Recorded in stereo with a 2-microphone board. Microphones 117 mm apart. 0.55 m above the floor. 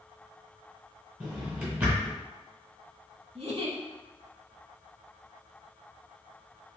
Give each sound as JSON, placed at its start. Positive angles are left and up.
{"t": 1.2, "sound": "a drawer", "side_deg": -20, "distance_m": 1.3}
{"t": 3.4, "sound": "a giggle", "side_deg": -55, "distance_m": 0.7}